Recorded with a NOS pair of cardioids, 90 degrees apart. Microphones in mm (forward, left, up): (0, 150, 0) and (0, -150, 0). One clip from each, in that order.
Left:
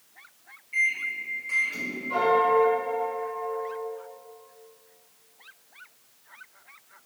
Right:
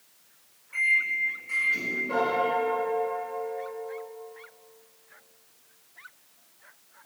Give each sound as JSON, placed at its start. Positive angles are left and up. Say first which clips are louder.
{"t": 0.7, "sound": "a microwave", "louder": "right 2 dB", "azimuth_deg": 15, "distance_m": 1.0}
{"t": 2.1, "sound": "a piano", "louder": "left 6 dB", "azimuth_deg": -65, "distance_m": 1.7}